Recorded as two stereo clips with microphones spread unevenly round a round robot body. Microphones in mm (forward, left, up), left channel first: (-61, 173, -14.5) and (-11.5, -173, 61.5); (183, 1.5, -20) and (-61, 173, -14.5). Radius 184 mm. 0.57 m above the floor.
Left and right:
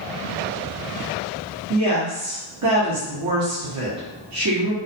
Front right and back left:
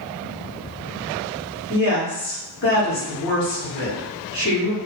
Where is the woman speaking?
55° right, 0.8 m.